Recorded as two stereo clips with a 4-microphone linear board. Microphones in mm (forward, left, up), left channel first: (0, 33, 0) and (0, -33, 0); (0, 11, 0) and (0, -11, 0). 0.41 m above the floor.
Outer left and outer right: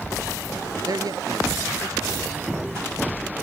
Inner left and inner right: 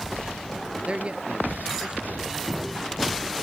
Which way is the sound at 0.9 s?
75° right (ahead or behind).